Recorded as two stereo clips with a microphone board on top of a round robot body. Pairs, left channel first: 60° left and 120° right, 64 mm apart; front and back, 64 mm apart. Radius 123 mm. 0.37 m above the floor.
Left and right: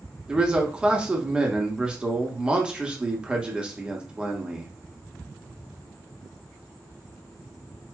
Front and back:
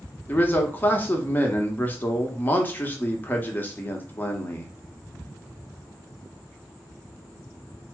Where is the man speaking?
50° right, 1.0 m.